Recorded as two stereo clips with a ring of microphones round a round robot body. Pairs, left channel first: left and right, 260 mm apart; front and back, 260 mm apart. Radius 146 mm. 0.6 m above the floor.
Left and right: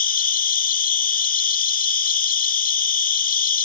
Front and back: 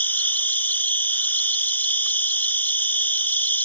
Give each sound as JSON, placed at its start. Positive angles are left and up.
{"t": 0.0, "sound": "an insect", "azimuth_deg": 75}